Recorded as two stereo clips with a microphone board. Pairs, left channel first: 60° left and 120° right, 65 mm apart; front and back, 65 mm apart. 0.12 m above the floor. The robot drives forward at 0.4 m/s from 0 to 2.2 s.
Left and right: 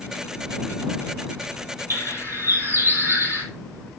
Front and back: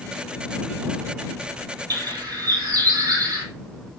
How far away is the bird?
About 2.5 m.